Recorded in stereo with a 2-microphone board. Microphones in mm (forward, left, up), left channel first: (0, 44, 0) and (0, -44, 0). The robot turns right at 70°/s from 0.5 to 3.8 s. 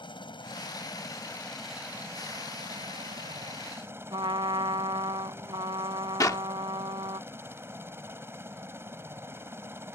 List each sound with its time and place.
0.0 s a helicopter: 100° left; by 10.0 s 30° right
4.1 s a trumpet: 70° right (ahead or behind)
6.2 s a clap: 40° left (ahead or behind)